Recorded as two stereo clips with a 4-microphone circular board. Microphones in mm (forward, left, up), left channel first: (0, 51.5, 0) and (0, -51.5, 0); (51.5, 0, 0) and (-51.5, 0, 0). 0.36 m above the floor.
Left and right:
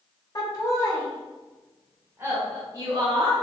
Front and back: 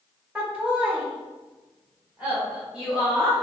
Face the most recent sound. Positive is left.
turn(degrees=-105)